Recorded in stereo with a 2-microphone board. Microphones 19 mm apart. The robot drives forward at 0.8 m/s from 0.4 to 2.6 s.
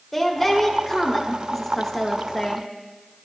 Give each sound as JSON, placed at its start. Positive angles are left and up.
{"t": 0.1, "sound": "a woman speaking", "side_deg": 10, "distance_m": 1.7}